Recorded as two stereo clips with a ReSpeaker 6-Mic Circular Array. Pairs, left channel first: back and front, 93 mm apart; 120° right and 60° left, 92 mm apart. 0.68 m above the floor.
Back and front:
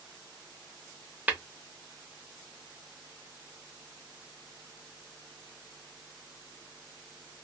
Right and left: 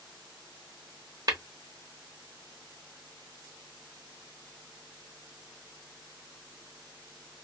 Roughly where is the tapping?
Ahead left.